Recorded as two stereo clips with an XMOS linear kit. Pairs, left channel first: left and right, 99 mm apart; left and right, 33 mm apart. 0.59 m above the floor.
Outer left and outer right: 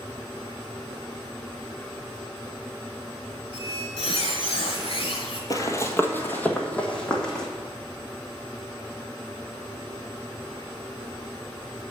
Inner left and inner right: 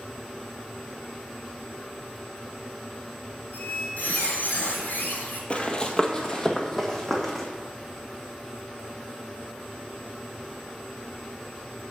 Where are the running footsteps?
35° left (ahead or behind), 1.0 m; by 7.5 s 5° left (ahead or behind), 2 m.